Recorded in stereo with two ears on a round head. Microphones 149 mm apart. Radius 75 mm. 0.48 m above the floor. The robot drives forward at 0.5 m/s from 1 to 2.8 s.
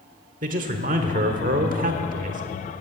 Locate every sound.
0.4 s a man speaking: 50° right (ahead or behind), 1.3 m; by 2.4 s 45° right (ahead or behind), 1.3 m